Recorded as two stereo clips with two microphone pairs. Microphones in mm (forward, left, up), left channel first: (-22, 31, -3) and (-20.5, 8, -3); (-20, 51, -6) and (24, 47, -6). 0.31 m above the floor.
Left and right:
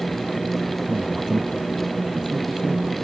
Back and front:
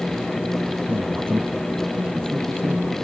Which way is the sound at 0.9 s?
35° right.